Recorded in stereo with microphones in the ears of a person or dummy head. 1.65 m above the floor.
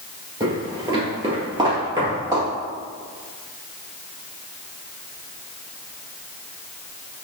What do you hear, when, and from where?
0.4 s footsteps: 25° right (ahead or behind), 1.8 m; by 2.5 s 20° right (ahead or behind), 1.9 m